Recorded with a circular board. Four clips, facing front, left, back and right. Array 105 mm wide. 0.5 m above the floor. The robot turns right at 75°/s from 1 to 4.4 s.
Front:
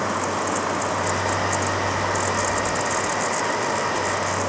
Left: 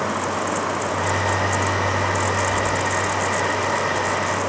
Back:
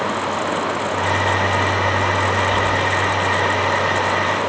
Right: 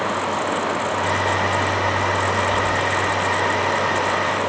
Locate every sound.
Only background noise.